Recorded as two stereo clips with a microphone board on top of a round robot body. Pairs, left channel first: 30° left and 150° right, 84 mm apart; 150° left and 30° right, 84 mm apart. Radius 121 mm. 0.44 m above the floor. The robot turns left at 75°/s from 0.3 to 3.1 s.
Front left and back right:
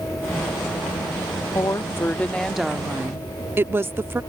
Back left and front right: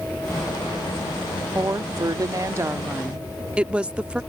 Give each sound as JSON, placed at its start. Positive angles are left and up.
{"t": 1.6, "sound": "a woman speaking", "azimuth_deg": 15}